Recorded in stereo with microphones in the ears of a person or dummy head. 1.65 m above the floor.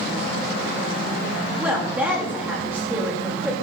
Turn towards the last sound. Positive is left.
turn(degrees=-10)  # may be behind; listen again after turning